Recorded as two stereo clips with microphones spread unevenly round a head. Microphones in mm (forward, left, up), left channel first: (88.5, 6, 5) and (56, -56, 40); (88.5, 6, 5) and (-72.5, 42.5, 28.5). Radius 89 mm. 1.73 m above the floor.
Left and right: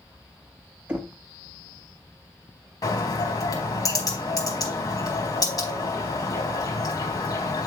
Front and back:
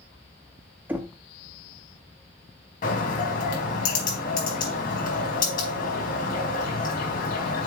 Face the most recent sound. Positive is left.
turn(degrees=25)